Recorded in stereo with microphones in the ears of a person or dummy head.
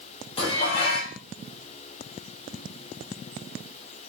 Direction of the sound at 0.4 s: 30° left (ahead or behind).